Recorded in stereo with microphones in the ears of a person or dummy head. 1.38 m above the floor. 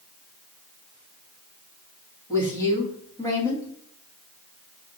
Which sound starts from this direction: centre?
A woman speaking, at 2.3 s.